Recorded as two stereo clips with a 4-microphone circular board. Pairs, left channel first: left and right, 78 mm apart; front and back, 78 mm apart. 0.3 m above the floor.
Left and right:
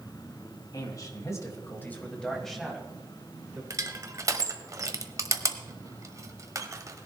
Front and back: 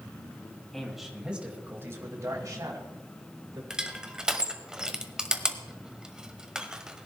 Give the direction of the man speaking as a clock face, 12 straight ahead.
9 o'clock.